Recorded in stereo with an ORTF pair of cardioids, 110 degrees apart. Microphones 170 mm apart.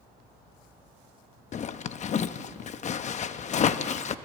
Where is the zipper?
45° left, 0.9 m.